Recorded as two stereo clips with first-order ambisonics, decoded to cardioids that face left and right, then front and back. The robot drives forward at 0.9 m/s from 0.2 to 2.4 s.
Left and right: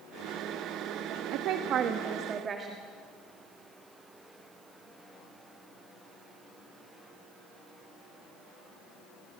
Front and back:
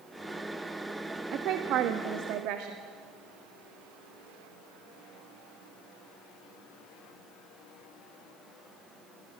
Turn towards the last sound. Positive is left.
turn(degrees=-155)